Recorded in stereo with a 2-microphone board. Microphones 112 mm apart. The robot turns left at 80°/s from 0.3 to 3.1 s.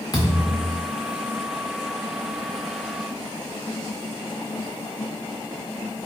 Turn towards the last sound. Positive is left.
turn(degrees=170)